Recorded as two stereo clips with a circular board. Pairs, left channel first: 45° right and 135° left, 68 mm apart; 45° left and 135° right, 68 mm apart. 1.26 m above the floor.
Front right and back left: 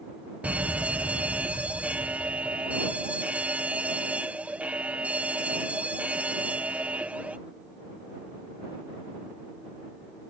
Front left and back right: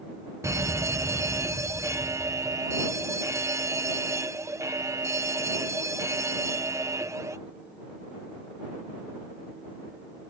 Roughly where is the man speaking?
I don't hear a man speaking.